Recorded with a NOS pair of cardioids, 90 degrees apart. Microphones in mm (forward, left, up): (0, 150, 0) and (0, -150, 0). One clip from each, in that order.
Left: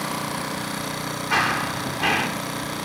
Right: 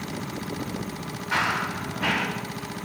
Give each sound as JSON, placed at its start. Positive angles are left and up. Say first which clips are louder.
{"t": 1.3, "sound": "running footsteps", "louder": "left 3 dB", "azimuth_deg": 15, "distance_m": 6.0}